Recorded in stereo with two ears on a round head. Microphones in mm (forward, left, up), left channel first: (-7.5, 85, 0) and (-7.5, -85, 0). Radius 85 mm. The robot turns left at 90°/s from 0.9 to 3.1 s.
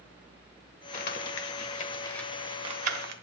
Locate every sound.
0.9 s crumpling: 50° left (ahead or behind), 1.3 m; by 3.1 s 60° right (ahead or behind), 1.3 m